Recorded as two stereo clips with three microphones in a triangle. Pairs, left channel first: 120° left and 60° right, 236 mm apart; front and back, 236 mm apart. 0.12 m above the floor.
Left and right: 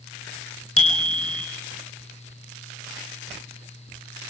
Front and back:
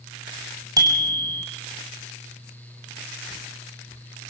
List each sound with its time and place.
0.8 s a bicycle bell: 105° left, 3 m